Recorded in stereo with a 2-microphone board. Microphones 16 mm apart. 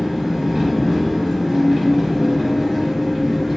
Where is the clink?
I don't hear a clink.